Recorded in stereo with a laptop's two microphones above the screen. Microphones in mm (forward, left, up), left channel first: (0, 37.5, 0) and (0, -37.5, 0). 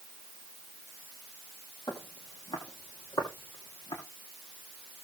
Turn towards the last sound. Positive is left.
turn(degrees=70)  # may be behind; listen again after turning